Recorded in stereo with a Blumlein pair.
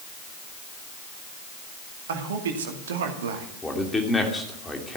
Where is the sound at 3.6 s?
10° left, 2.5 m.